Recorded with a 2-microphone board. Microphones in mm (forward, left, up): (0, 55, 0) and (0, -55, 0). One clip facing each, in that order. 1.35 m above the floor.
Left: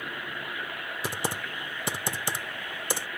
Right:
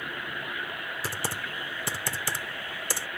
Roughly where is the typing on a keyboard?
Left.